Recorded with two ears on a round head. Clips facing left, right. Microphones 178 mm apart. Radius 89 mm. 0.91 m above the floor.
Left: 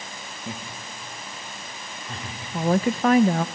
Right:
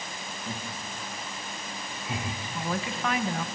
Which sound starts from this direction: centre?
Laughter, at 0.5 s.